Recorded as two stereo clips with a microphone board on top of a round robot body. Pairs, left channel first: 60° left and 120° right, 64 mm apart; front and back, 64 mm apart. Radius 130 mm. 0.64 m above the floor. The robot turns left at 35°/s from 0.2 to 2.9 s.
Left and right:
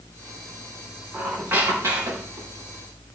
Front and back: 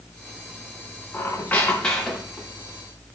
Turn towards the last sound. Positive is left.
turn(degrees=-115)